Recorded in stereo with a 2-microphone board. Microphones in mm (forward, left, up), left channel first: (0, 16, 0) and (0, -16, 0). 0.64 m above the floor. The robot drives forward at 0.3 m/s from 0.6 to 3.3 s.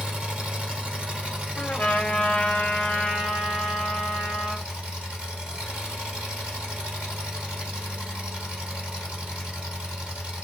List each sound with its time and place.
0.0 s an engine running: 40° right (ahead or behind), 1.5 m; by 10.4 s 25° right (ahead or behind), 2 m
1.6 s a trumpet: 60° left (ahead or behind), 0.6 m; by 4.7 s 40° left (ahead or behind), 0.8 m